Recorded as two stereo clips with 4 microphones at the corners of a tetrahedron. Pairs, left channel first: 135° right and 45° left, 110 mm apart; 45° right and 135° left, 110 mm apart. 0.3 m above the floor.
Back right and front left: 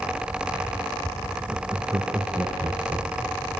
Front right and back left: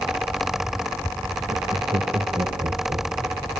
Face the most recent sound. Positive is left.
turn(degrees=100)